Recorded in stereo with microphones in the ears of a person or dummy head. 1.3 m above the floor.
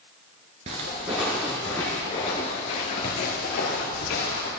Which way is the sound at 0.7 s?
20° right (ahead or behind).